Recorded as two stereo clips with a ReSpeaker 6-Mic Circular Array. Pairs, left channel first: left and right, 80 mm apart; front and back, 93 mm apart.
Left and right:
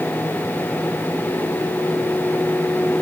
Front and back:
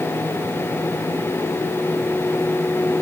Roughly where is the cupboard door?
No cupboard door in this recording.